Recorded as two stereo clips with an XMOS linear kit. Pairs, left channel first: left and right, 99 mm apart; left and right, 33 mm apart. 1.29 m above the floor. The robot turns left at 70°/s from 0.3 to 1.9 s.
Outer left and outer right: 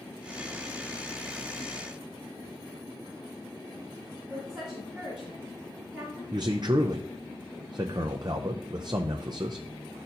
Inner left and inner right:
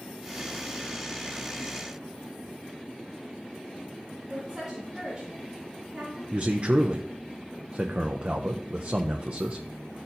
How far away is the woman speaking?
About 2.5 m.